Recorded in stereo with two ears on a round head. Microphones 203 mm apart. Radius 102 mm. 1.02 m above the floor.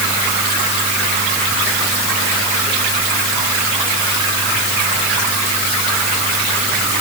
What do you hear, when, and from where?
Only background noise.